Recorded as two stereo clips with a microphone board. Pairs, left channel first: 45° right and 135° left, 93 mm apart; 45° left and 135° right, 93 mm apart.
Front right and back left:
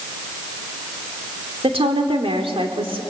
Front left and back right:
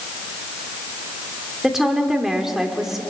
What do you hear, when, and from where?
1.6 s a woman speaking: 140° left, 2.5 m